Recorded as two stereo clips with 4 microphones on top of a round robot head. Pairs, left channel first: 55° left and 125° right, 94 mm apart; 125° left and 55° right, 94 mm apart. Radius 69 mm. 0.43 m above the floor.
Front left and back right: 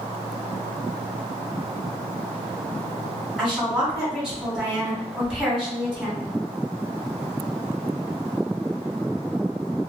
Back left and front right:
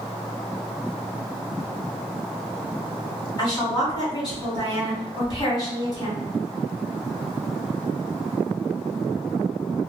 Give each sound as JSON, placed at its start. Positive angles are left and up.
{"t": 3.4, "sound": "a woman speaking", "azimuth_deg": 145, "distance_m": 1.9}